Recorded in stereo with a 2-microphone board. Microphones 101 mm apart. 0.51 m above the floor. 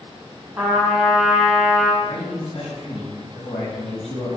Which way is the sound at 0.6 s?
25° right (ahead or behind).